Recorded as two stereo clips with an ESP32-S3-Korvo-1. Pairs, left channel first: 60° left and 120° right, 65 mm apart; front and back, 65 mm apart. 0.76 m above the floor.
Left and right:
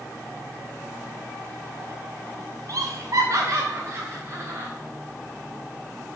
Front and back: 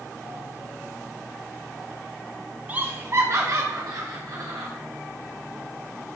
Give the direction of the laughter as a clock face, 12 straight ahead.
4 o'clock.